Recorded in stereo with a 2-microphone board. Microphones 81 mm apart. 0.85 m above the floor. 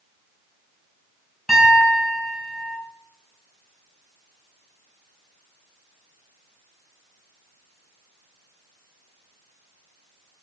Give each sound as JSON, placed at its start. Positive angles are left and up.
{"t": 1.5, "sound": "a piano", "side_deg": 5, "distance_m": 5.0}